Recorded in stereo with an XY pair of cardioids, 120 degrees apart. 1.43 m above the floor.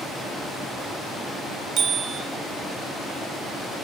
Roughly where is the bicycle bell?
Ahead right.